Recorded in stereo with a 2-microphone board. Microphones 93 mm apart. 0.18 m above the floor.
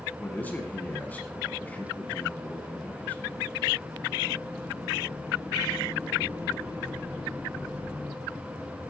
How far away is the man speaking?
About 1.7 m.